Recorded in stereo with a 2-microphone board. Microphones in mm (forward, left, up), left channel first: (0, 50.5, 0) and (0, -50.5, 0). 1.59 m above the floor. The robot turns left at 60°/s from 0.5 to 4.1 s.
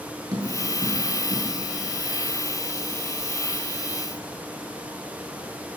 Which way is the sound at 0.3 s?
40° right (ahead or behind).